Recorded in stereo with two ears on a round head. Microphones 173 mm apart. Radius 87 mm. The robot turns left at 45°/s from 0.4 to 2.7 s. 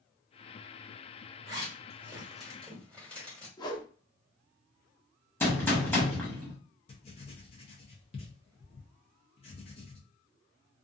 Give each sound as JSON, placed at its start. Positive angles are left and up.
{"t": 1.4, "sound": "a zipper", "side_deg": -30, "distance_m": 1.7}
{"t": 3.6, "sound": "a whoosh", "side_deg": 20, "distance_m": 0.7}
{"t": 5.4, "sound": "a gunshot", "side_deg": 10, "distance_m": 0.9}
{"t": 6.9, "sound": "writing", "side_deg": 30, "distance_m": 0.7}